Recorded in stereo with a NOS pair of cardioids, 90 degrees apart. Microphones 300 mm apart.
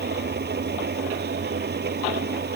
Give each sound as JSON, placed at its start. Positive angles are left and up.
{"t": 0.0, "sound": "an engine running", "azimuth_deg": -35}